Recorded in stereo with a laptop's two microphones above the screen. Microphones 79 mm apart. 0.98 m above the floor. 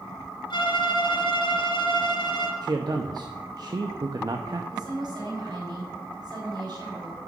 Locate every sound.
0.5 s a violin: 70° left (ahead or behind), 2 m
2.6 s a man speaking: 55° right (ahead or behind), 0.8 m
4.7 s a woman speaking: 55° right (ahead or behind), 4.5 m